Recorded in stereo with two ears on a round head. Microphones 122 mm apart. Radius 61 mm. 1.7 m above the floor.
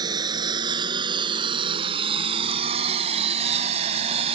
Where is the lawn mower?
30° right (ahead or behind); by 4.3 s 50° right (ahead or behind).